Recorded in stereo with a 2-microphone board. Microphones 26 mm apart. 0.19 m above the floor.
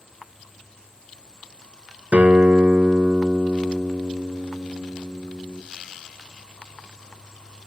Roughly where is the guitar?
Right.